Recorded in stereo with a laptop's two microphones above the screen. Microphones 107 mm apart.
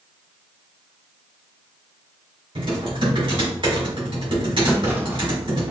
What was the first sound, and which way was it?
Typing on a keyboard, 50° right (ahead or behind).